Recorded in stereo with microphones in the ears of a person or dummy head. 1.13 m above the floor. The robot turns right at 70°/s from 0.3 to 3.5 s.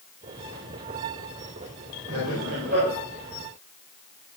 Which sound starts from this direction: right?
Laughter, at 2.1 s.